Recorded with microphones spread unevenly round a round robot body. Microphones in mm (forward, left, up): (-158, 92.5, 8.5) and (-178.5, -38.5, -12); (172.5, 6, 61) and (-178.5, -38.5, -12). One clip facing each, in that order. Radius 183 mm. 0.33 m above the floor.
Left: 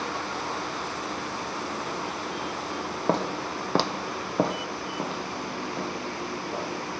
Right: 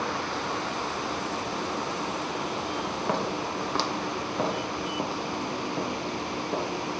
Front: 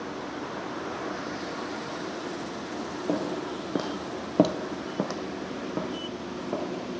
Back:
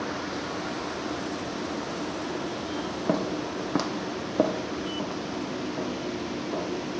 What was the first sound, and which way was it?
Footsteps, 135° left.